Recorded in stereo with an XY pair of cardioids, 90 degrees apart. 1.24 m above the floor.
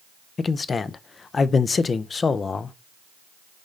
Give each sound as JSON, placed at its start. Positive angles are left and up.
{"t": 0.4, "sound": "a man speaking", "azimuth_deg": 45, "distance_m": 0.5}